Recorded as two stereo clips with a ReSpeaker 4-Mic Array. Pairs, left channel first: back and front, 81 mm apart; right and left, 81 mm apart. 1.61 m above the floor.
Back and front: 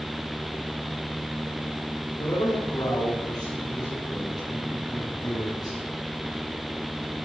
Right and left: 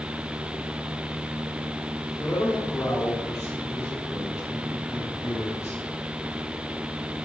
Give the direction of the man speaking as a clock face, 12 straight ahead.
5 o'clock.